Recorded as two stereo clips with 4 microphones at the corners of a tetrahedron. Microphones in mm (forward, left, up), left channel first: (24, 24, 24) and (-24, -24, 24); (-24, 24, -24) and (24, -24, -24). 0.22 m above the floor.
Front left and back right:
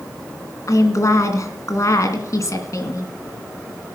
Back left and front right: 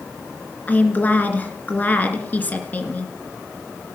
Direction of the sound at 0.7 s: 75° left.